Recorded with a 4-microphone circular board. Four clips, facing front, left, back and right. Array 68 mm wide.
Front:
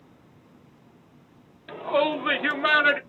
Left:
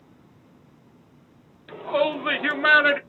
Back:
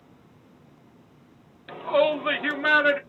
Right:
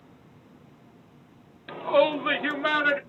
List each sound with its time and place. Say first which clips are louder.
1.7 s a shout: right 2 dB, back 2 dB; 105° right, 0.7 m; by 3.0 s 70° left, 1.0 m